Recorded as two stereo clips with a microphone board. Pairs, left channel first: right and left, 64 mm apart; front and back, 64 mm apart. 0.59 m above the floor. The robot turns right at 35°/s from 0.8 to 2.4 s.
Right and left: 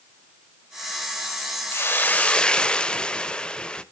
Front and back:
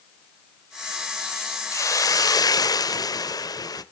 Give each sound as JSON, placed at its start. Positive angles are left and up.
{"t": 1.7, "sound": "a hiss", "azimuth_deg": -40, "distance_m": 0.8}